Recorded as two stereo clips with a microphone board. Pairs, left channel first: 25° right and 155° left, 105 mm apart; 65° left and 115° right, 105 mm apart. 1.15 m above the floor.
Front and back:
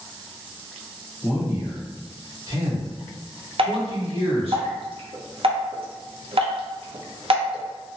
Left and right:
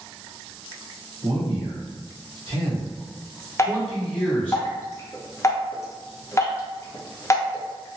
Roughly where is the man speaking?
Right.